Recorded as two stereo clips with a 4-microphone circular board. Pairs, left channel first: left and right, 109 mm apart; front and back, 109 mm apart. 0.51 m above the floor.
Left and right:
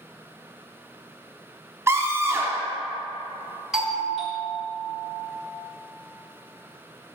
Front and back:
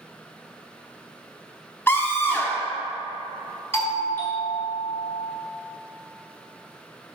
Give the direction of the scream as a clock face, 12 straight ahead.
2 o'clock.